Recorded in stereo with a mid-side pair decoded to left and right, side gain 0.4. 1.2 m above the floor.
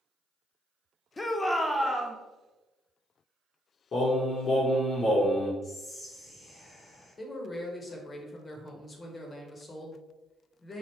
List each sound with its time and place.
1.2 s a shout: 30° left, 0.8 m; by 2.2 s 5° left, 1.1 m
3.9 s singing: 55° left, 1.2 m
5.6 s whispering: 45° left, 1.3 m
7.2 s a man speaking: 40° left, 1.2 m